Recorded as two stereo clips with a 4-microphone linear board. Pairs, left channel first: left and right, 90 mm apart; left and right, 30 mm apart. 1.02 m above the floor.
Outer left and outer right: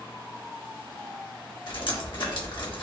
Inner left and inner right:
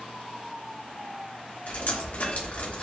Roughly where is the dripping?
Left.